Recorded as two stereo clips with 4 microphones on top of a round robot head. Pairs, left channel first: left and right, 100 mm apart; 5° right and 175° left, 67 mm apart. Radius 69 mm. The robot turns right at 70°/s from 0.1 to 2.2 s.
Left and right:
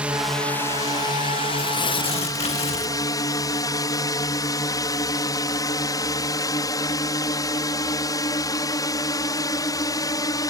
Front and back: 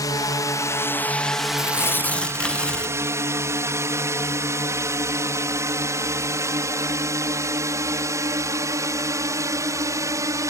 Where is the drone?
15° right; by 10.5 s 140° left.